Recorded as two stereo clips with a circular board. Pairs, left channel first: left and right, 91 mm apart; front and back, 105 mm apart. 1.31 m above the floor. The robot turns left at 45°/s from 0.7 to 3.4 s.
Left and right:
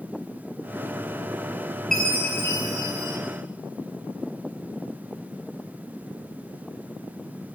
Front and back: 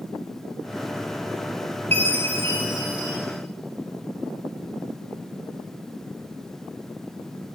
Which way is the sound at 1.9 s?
175° left.